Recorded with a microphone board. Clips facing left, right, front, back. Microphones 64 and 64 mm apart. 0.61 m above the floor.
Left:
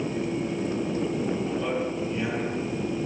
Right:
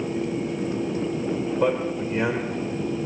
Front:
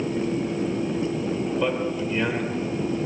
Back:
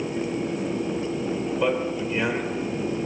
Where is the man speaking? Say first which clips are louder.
Right 4 dB, back 1 dB; 95° right, 2.5 m.